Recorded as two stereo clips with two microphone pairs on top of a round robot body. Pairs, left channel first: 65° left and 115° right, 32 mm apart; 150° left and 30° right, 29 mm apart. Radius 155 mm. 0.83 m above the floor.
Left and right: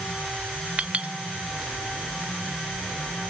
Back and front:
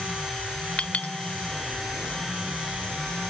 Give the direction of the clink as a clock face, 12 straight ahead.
6 o'clock.